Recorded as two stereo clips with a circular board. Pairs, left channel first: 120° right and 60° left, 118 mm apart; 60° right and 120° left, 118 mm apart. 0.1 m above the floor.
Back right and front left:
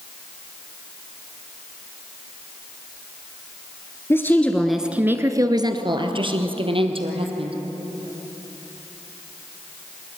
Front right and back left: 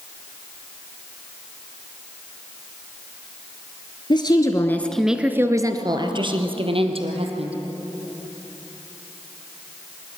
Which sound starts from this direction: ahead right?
A woman speaking, at 4.1 s.